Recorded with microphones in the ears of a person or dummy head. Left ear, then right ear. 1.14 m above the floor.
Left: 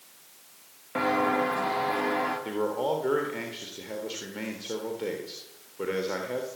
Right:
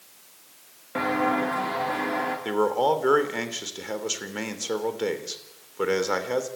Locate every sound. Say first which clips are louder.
0.9 s footsteps: right 1 dB; 5° left (ahead or behind), 5.5 m; by 2.4 s centre (ahead or behind), 7.5 m
2.5 s a man speaking: right 6 dB; 40° right (ahead or behind), 3 m